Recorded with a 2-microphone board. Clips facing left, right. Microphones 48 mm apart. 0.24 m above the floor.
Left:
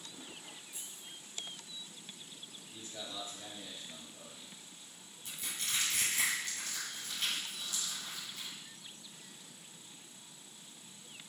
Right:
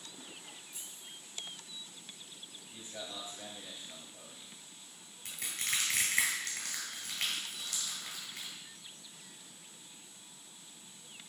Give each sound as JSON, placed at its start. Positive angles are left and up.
{"t": 0.7, "sound": "keys jangling", "side_deg": 10, "distance_m": 1.7}
{"t": 2.7, "sound": "a man speaking", "side_deg": -25, "distance_m": 1.0}
{"t": 5.2, "sound": "crushing", "side_deg": -70, "distance_m": 1.9}